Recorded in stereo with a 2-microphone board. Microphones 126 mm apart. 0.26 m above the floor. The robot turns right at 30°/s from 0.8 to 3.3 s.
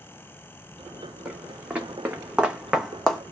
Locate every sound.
1.2 s footsteps: 5° right (ahead or behind), 1.3 m; by 3.2 s 5° left (ahead or behind), 0.8 m